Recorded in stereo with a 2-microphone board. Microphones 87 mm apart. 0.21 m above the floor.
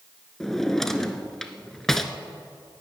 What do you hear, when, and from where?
0.4 s a drawer: 5° left (ahead or behind), 0.9 m